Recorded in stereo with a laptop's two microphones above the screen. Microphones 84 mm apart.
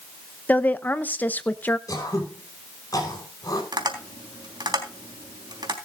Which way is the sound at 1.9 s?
45° left (ahead or behind).